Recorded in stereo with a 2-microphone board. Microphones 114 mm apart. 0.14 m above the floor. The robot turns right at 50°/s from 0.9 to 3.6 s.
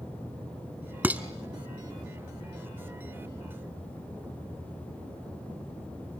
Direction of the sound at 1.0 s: 15° right (ahead or behind).